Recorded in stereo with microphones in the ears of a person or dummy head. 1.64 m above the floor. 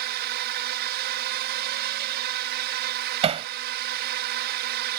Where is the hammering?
30° right (ahead or behind).